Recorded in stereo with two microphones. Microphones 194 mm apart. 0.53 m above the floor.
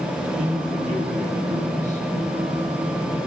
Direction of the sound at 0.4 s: 40° right (ahead or behind).